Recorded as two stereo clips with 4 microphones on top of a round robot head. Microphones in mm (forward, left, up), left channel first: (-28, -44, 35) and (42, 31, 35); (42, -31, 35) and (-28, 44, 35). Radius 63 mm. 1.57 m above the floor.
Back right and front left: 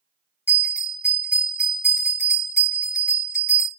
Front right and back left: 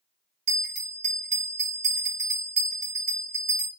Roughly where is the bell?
Behind.